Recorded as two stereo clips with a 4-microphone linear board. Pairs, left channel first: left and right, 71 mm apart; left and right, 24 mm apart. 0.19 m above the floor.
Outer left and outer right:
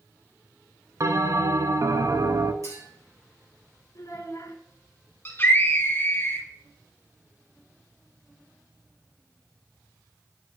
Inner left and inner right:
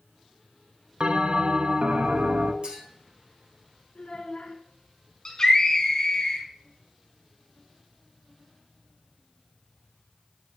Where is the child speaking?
55° left (ahead or behind), 1.3 m.